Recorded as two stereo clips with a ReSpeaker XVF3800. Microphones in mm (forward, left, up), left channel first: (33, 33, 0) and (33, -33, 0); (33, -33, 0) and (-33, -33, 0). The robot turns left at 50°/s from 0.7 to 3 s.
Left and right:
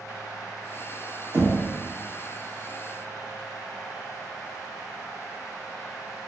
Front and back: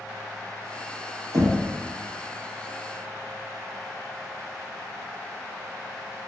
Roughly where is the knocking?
Behind right.